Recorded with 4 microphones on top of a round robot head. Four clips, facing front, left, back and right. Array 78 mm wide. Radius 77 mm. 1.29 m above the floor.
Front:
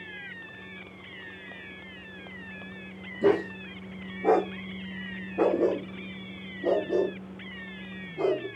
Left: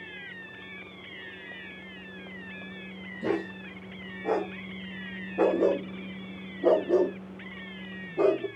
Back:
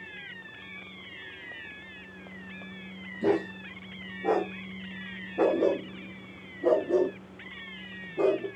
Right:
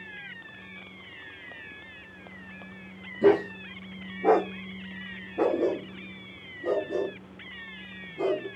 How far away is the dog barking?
About 1.2 m.